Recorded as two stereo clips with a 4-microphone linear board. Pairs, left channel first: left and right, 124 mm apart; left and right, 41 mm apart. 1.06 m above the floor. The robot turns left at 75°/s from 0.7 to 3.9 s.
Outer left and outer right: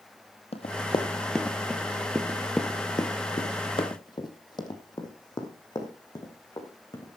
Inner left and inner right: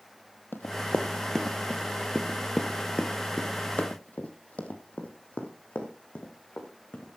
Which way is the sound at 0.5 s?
55° left (ahead or behind).